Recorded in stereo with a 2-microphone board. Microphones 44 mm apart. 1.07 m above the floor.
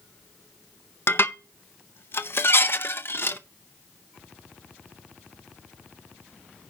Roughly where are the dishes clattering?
Left.